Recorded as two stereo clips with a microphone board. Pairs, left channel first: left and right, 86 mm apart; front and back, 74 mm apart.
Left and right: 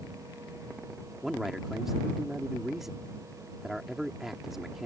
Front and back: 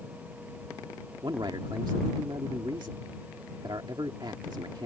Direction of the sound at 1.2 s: Straight behind.